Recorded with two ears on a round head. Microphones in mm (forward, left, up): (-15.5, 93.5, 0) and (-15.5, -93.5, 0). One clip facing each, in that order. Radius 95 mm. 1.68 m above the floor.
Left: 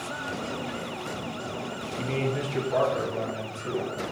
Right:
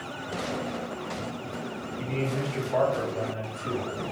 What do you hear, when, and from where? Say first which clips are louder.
2.0 s a man speaking: left 1 dB; 40° left (ahead or behind), 0.5 m; by 4.0 s 65° left (ahead or behind), 3 m